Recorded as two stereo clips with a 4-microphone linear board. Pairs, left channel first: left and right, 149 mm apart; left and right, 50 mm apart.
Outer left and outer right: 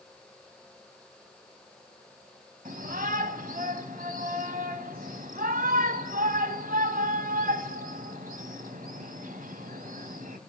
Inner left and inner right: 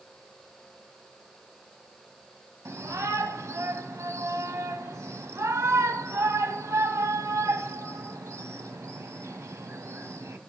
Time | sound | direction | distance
2.6 | a shout | 70° right (ahead or behind) | 2.5 m